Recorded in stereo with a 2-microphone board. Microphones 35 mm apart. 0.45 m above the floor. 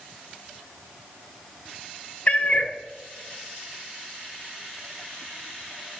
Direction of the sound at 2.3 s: 45° left (ahead or behind).